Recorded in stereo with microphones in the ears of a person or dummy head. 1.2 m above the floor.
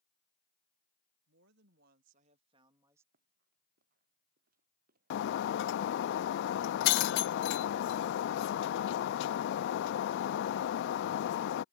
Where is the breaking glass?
65° left (ahead or behind).